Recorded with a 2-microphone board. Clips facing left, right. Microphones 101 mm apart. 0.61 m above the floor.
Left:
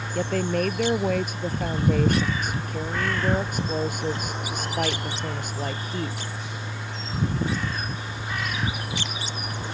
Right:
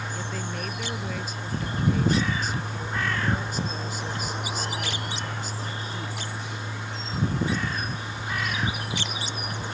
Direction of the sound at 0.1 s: 55° left (ahead or behind).